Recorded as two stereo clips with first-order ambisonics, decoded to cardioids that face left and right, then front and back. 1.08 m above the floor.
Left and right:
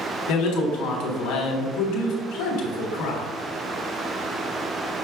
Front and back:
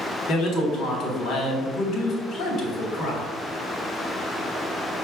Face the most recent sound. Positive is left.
turn(degrees=55)